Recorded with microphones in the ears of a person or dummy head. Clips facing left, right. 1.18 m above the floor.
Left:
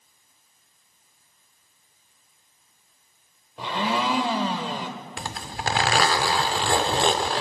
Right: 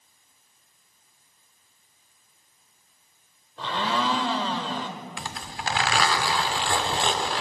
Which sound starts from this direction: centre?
A blender, at 3.6 s.